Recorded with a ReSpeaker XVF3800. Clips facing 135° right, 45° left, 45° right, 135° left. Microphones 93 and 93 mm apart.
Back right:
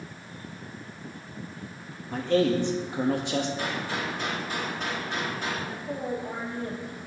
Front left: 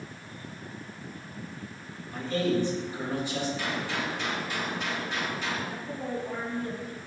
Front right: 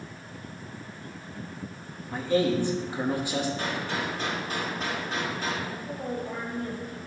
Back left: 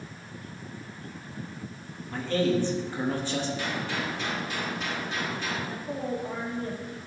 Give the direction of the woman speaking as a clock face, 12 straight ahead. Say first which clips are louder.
Back right 2 dB, back left 2 dB; 6 o'clock.